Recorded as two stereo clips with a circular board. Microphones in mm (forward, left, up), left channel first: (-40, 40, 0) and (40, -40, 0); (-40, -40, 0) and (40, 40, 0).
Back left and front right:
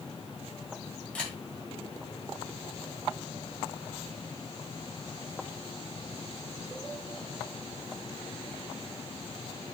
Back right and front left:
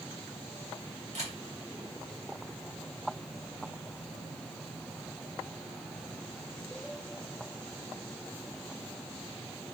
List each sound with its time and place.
1.1 s a camera shutter: 60° left, 2.5 m